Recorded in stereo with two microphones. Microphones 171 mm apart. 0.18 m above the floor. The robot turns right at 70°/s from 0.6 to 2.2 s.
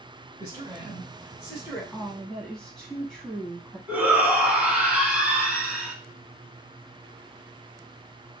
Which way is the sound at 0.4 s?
25° right (ahead or behind).